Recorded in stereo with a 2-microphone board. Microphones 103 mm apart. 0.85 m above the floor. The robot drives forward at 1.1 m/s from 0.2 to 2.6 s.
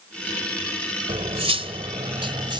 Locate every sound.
1.1 s cutlery clinking: 80° right; by 2.6 s 50° right (ahead or behind)